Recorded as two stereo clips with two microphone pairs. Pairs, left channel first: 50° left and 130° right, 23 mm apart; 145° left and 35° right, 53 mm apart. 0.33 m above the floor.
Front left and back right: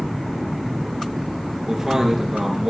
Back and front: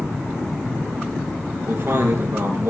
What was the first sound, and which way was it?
A man speaking, 65° right.